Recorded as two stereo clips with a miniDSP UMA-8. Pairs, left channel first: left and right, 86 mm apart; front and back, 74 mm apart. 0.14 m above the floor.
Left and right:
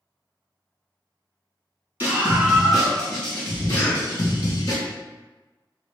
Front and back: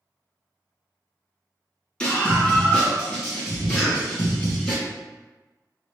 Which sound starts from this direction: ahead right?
A scream, at 2.0 s.